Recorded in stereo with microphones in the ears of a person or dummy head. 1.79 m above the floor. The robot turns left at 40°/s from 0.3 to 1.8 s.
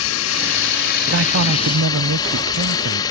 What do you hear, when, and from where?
0.0 s a drone: 85° left; by 3.1 s 25° left
1.1 s a man speaking: 60° right (ahead or behind); by 3.0 s 65° right (ahead or behind)